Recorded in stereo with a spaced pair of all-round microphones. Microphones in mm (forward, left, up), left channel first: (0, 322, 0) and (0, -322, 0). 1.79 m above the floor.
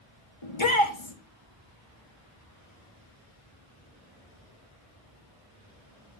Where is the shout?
45° left (ahead or behind), 1.5 m.